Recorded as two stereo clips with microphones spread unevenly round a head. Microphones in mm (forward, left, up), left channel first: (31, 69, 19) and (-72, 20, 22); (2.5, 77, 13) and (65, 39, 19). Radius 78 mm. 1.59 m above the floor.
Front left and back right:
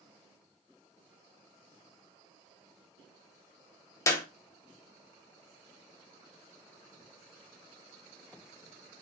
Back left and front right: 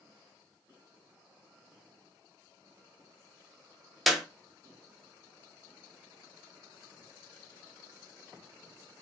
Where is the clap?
45° left, 0.7 m.